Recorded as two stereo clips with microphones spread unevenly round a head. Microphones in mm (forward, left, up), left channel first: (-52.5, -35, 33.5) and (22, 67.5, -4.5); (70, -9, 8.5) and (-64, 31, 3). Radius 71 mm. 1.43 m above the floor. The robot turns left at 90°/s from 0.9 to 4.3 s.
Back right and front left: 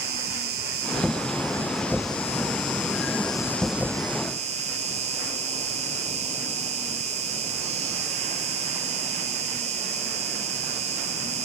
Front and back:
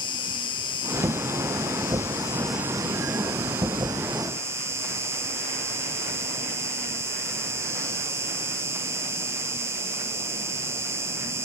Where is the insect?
40° left, 1.7 m; by 11.4 s 95° left, 1.7 m.